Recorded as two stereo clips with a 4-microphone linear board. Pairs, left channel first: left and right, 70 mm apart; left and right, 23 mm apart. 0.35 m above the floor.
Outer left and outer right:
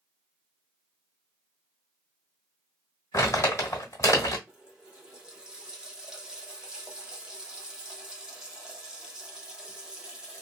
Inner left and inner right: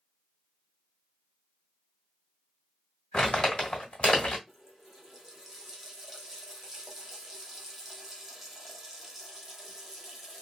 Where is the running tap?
10° right (ahead or behind), 1.0 m.